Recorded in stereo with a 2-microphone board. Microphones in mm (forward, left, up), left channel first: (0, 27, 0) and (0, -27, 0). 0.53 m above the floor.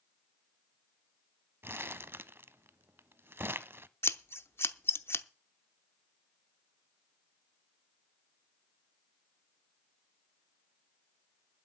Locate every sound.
1.6 s crumpling: 45° right (ahead or behind), 0.5 m
4.0 s scissors: 50° left (ahead or behind), 0.7 m